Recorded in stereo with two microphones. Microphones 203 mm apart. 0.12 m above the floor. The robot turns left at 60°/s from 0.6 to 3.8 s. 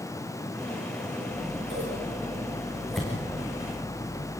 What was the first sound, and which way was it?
Scissors, 75° right (ahead or behind).